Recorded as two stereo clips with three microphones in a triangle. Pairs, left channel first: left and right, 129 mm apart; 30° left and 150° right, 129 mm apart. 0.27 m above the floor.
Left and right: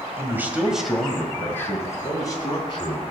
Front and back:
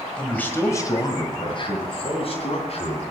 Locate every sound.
0.2 s a man speaking: 45° right, 1.8 m; by 3.0 s 45° left, 3 m